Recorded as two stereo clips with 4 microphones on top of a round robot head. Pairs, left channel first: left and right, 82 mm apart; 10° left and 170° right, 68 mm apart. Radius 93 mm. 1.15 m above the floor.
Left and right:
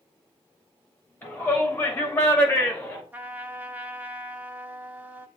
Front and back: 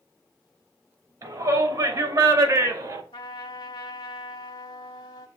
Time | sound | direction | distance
1.2 | a shout | 160° left | 3 m
3.1 | a trumpet | 20° right | 0.8 m